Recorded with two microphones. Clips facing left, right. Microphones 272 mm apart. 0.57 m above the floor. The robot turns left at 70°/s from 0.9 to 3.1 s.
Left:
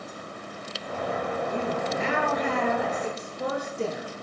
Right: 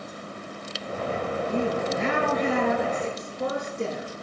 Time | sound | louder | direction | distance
1.5 | a woman speaking | right 3 dB | 85° right | 7 m